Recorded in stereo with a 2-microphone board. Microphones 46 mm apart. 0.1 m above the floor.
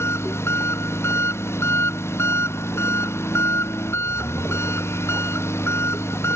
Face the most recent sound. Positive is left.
turn(degrees=65)  # may be behind; listen again after turning